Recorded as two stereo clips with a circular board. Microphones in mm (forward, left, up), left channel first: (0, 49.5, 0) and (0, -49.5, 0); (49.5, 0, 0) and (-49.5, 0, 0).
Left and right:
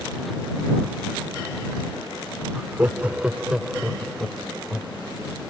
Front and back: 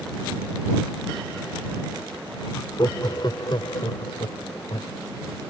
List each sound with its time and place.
2.5 s laughter: 30° right; by 5.0 s straight ahead